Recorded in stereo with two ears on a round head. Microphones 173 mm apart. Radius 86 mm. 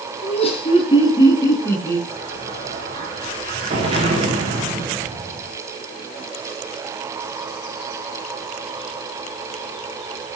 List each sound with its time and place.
0.2 s laughter: 35° left (ahead or behind), 6 m; by 2.0 s 10° left (ahead or behind), 7 m
2.1 s an explosion: 30° right (ahead or behind), 9.5 m